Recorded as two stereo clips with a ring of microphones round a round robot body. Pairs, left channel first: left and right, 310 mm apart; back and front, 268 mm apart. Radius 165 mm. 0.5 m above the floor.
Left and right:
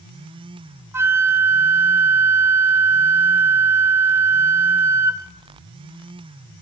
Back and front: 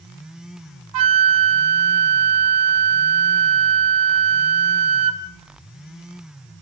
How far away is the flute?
About 0.9 m.